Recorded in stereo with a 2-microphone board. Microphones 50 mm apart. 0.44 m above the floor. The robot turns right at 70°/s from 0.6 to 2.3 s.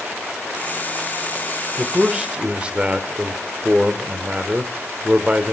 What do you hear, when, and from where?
1.8 s a man speaking: straight behind, 1.3 m; by 5.5 s 145° right, 1.3 m